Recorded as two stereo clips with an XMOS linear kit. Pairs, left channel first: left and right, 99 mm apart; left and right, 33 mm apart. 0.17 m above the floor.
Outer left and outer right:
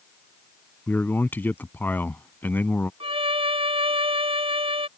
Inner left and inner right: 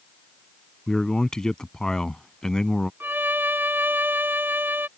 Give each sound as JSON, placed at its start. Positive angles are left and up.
{"t": 0.9, "sound": "a man speaking", "side_deg": 20}
{"t": 3.0, "sound": "a violin", "side_deg": -70}